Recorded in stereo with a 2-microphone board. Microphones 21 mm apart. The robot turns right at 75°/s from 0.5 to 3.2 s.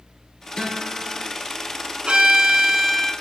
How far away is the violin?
About 1.1 m.